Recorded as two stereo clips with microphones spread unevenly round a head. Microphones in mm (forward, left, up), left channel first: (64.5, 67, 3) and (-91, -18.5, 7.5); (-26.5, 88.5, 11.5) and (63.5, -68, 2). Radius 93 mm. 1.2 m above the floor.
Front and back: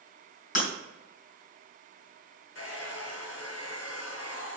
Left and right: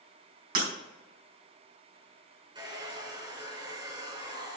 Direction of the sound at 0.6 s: 20° right.